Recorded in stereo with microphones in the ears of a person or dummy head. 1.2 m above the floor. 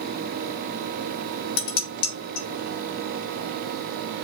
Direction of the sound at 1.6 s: 60° left (ahead or behind).